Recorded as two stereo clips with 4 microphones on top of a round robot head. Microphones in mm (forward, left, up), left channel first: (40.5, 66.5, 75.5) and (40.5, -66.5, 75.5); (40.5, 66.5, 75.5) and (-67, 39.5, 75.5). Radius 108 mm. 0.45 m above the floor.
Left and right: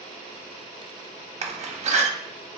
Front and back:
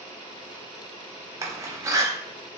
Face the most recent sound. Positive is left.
turn(degrees=-110)